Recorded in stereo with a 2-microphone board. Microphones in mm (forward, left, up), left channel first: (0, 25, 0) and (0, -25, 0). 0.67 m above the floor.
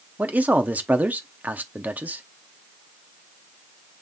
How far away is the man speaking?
About 0.8 m.